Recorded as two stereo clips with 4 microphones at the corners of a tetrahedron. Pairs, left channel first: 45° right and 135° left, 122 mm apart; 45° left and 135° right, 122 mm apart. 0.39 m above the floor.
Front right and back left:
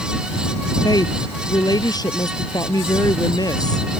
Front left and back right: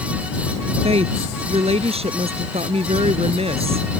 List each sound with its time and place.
0.8 s a woman speaking: 100° right